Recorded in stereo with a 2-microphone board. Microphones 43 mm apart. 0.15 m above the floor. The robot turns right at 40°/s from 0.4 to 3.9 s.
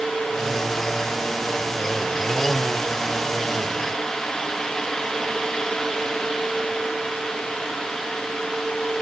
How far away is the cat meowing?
I don't hear a cat meowing.